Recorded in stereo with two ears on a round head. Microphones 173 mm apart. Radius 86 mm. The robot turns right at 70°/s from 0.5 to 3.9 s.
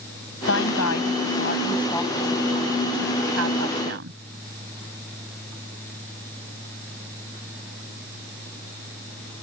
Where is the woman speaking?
65° left; by 4.2 s 60° right.